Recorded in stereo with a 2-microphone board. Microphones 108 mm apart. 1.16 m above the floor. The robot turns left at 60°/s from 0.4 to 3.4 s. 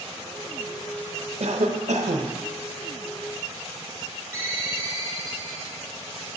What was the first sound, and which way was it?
A cough, 65° right.